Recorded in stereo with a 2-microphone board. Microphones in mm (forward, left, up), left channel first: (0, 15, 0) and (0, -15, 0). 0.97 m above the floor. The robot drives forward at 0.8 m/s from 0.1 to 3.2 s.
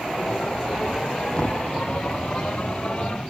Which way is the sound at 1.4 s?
35° left (ahead or behind).